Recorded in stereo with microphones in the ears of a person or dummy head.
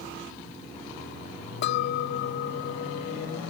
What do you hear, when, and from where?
1.6 s a clink: 60° left (ahead or behind)